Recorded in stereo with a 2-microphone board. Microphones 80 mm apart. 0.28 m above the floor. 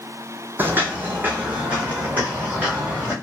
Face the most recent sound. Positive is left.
turn(degrees=-20)  # may be behind; listen again after turning